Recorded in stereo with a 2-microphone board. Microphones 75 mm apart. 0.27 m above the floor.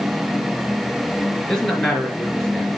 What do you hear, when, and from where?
1.5 s a man speaking: 5° left (ahead or behind), 4 m